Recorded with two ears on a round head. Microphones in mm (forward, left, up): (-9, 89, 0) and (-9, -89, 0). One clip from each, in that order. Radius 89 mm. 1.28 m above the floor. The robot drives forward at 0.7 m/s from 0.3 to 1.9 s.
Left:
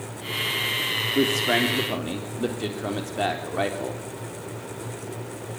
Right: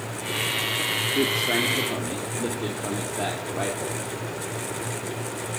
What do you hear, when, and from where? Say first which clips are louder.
1.1 s a man speaking: left 3 dB; 35° left (ahead or behind), 3 m; by 4.0 s 30° left (ahead or behind), 3.5 m